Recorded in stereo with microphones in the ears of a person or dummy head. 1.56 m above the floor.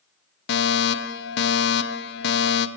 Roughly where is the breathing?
I don't hear breathing.